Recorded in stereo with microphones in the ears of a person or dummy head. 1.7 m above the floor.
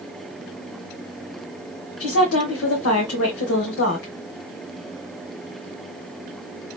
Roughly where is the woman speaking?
Left.